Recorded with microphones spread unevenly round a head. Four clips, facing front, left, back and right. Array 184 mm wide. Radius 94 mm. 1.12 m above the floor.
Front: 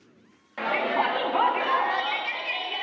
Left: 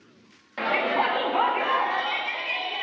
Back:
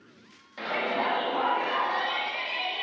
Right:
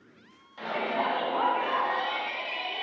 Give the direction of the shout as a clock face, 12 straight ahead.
9 o'clock.